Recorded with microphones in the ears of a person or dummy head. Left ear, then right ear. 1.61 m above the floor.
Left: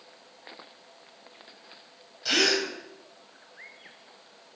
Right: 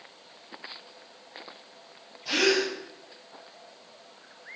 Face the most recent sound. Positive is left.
turn(degrees=60)  # may be behind; listen again after turning